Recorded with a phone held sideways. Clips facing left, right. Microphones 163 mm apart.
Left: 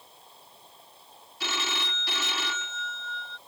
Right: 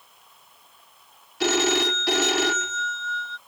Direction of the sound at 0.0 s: 30° left (ahead or behind).